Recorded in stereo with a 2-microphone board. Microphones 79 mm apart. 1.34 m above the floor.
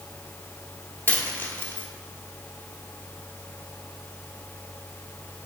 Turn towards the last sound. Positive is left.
turn(degrees=25)  # may be behind; listen again after turning